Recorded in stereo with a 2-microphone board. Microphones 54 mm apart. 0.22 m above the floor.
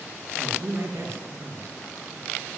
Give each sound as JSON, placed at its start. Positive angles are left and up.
{"t": 0.4, "sound": "a woman speaking", "side_deg": -60, "distance_m": 4.0}